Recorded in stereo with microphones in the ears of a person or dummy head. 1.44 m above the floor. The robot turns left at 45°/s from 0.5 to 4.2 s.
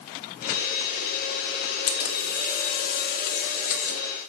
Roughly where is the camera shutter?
Behind left.